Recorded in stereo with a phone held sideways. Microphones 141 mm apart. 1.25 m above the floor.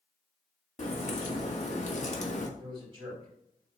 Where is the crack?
55° left (ahead or behind), 1.4 m.